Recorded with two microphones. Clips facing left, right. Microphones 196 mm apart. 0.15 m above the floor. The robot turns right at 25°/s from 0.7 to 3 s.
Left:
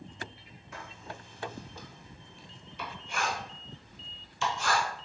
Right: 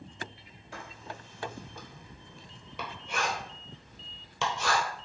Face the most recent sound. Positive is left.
turn(degrees=-80)